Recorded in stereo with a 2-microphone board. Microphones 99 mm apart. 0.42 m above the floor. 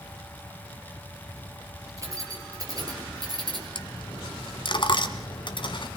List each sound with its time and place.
2.0 s keys jangling: 35° right (ahead or behind), 5 m; by 3.6 s 45° right (ahead or behind), 4.5 m
3.8 s a dropped coin: 55° left (ahead or behind), 1.4 m